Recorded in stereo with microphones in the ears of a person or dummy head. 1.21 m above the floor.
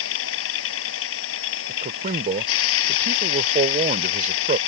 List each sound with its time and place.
0.0 s a machine running: 75° left (ahead or behind)
1.7 s a man speaking: 40° right (ahead or behind)